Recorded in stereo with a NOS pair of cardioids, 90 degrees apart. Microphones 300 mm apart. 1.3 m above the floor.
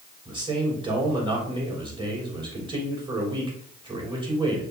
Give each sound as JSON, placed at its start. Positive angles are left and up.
{"t": 0.2, "sound": "a man speaking", "azimuth_deg": -15, "distance_m": 3.0}